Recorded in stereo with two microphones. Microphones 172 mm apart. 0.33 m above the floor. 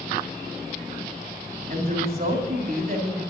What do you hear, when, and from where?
1.7 s a woman speaking: 60° right (ahead or behind), 2.5 m